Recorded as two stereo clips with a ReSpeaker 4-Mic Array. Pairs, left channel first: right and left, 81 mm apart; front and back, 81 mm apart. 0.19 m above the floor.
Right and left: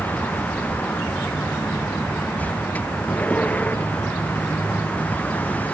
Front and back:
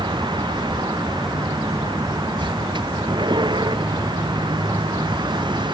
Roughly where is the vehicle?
Behind.